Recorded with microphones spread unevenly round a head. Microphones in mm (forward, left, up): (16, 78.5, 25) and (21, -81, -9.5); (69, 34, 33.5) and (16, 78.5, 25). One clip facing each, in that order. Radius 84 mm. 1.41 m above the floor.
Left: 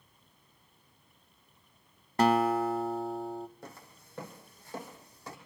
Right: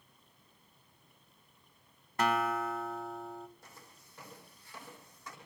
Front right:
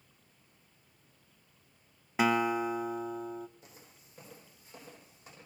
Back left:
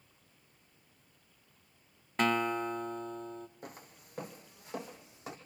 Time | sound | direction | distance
2.2 | a guitar | 40° left | 1.0 m
3.6 | footsteps | 110° left | 3.5 m